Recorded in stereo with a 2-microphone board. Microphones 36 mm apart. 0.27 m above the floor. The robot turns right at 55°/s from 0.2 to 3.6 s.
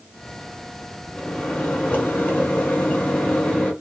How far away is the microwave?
About 1.9 m.